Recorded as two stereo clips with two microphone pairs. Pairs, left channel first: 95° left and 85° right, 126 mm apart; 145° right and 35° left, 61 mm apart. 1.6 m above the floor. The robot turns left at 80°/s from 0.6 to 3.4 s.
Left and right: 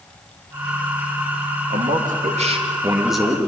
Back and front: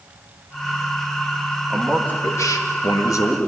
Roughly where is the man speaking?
Ahead right.